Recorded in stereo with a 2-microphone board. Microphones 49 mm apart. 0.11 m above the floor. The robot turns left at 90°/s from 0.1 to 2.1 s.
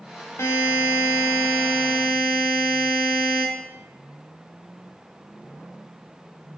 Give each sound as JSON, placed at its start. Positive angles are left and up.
{"t": 0.4, "sound": "a buzzer", "azimuth_deg": 120, "distance_m": 1.7}